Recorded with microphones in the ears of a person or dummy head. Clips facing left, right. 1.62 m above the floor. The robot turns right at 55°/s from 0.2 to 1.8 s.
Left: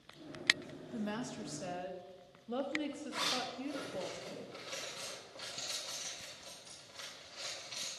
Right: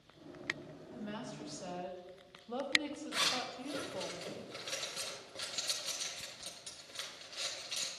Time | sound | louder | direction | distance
0.9 | a woman speaking | left 5 dB | 115° left | 0.9 m
3.1 | a zipper | left 1 dB | 20° right (ahead or behind) | 1.5 m